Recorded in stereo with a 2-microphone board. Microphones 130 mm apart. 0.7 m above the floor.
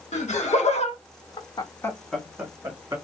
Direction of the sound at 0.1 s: 60° left (ahead or behind).